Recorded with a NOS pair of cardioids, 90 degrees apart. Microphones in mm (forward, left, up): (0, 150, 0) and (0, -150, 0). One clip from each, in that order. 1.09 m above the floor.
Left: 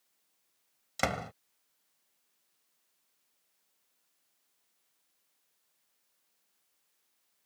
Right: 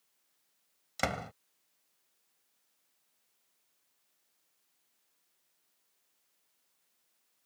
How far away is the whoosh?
I don't hear a whoosh.